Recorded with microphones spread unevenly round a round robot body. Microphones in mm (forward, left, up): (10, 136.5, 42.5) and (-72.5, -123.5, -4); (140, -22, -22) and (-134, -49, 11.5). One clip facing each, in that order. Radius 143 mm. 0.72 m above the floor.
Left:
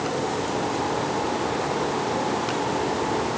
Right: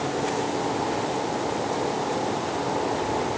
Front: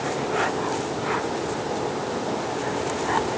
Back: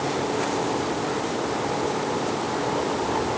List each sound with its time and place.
Only background noise.